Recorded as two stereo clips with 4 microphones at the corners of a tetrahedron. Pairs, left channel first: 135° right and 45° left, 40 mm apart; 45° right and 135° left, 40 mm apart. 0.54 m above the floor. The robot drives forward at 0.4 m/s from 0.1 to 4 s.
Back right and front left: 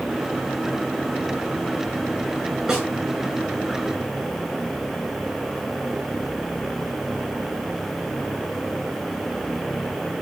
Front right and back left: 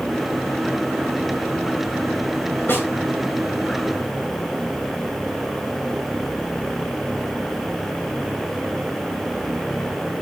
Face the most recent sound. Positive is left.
turn(degrees=-30)